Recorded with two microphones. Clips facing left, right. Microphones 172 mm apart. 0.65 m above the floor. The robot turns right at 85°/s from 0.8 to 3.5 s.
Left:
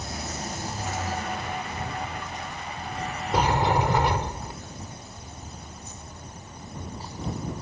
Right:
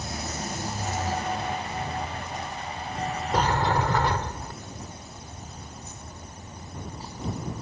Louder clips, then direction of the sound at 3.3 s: Left 2 dB; 5° left (ahead or behind).